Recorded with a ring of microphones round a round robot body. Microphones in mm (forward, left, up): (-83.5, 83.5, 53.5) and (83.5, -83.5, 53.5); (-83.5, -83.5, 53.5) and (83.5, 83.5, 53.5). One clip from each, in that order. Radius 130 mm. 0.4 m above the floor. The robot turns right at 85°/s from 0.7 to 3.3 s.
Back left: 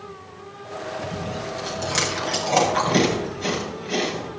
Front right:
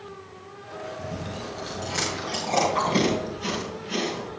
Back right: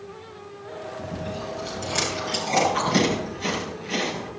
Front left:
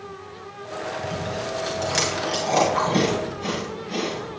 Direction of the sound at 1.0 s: Straight ahead.